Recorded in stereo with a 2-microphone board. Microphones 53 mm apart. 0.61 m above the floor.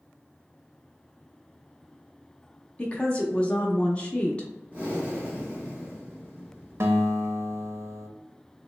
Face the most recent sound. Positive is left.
turn(degrees=-60)  # may be behind; listen again after turning